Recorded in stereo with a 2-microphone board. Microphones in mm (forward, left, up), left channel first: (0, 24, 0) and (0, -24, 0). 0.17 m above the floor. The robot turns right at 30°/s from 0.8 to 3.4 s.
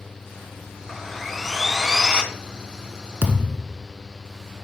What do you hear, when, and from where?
0.9 s sawing: 165° left, 0.7 m; by 2.2 s 155° right, 0.7 m
3.2 s a thud: 45° right (ahead or behind), 0.9 m; by 3.8 s 40° right (ahead or behind), 0.9 m